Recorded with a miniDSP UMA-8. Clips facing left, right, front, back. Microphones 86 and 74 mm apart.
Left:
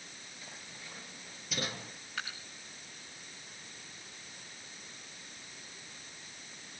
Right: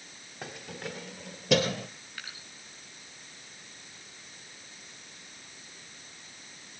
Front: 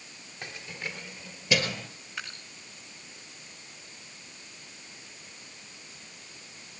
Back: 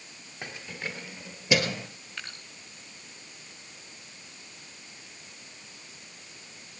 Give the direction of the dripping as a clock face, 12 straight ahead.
9 o'clock.